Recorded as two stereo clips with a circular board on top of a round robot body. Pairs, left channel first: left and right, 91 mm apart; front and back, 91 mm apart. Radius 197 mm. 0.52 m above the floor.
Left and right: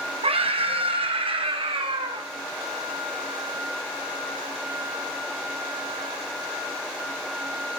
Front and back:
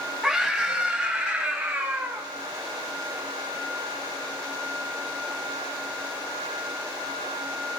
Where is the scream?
90° right, 4.5 m; by 2.3 s 105° right, 3 m.